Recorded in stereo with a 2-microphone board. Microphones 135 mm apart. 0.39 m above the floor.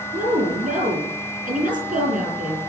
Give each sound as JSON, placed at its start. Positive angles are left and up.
{"t": 0.1, "sound": "a woman speaking", "side_deg": -85, "distance_m": 9.0}